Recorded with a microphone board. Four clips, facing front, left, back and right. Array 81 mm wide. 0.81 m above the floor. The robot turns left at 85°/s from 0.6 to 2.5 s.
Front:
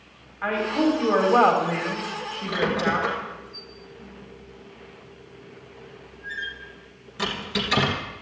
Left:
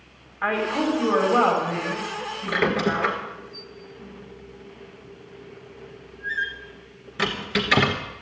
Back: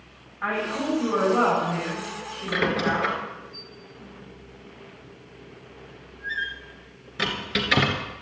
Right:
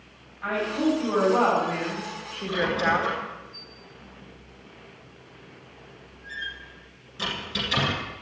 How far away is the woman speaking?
About 2.5 m.